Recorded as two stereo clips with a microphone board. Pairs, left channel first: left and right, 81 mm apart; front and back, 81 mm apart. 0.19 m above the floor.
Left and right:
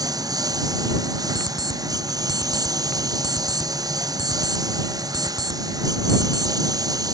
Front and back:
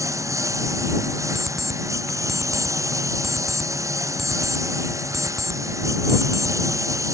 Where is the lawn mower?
130° right.